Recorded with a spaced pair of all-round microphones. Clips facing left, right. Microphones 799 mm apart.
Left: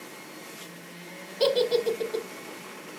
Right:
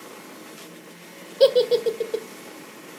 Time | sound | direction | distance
1.4 | a giggle | 15° right (ahead or behind) | 0.8 m